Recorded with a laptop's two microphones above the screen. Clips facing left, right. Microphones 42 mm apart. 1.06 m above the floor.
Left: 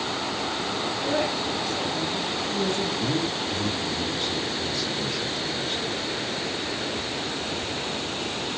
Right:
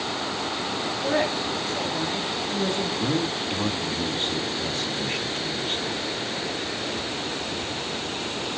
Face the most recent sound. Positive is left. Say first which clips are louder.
# right 1 dB
turn(degrees=-40)  # may be behind; listen again after turning